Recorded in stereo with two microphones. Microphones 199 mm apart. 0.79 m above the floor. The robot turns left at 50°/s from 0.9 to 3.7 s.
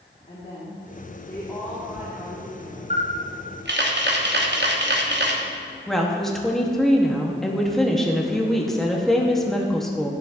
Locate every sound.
0.3 s a woman speaking: 40° left, 1.8 m; by 2.8 s 55° right, 1.8 m
2.9 s a camera shutter: 40° right, 1.0 m; by 5.4 s 80° right, 1.0 m
5.9 s a woman speaking: centre (ahead or behind), 1.1 m